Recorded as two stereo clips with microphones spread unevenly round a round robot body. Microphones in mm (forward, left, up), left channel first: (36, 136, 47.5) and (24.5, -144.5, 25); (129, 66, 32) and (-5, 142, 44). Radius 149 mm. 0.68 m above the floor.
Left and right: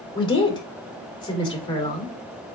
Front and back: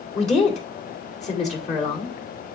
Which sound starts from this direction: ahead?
A woman speaking, at 0.1 s.